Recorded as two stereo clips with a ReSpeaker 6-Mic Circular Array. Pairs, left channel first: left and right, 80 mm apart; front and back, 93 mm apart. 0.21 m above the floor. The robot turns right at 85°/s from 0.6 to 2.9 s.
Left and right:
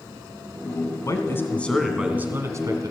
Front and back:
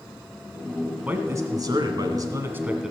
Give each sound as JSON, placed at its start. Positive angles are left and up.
{"t": 1.1, "sound": "a man speaking", "azimuth_deg": 110, "distance_m": 1.7}